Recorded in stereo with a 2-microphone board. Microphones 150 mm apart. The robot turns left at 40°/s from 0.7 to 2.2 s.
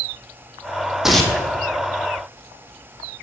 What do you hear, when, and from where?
1.0 s tearing paper: 5° right (ahead or behind), 1.5 m; by 1.4 s 10° left (ahead or behind), 1.5 m